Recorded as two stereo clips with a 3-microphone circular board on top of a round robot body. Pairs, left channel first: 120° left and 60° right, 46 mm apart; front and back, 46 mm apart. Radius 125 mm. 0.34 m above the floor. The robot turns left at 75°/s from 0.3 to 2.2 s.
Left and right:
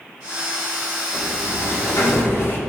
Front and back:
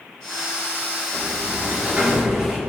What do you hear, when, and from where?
1.1 s a sliding door: straight behind, 4.5 m; by 2.6 s 100° left, 4.5 m